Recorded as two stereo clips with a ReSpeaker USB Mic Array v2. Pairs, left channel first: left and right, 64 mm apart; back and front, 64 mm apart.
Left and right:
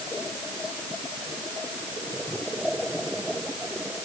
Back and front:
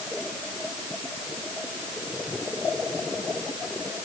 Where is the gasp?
No gasp in this recording.